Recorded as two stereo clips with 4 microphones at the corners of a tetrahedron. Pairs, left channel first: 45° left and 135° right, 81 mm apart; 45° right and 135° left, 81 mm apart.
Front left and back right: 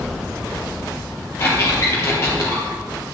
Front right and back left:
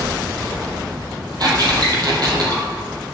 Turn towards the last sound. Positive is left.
turn(degrees=100)